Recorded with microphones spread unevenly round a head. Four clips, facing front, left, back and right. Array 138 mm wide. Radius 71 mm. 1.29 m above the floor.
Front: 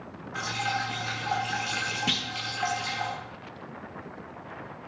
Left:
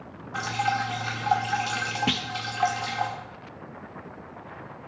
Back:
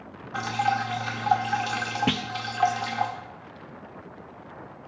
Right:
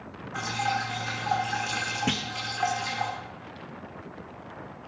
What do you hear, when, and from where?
0.3 s dripping: 160° left, 1.3 m
2.1 s a clunk: straight behind, 0.6 m